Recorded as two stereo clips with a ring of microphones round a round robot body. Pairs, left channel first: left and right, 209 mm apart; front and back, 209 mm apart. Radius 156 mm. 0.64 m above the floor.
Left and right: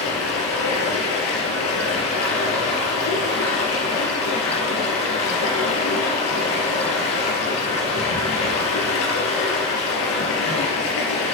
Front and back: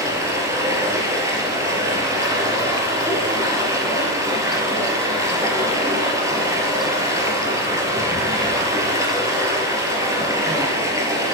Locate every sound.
0.0 s running water: 105° left, 4 m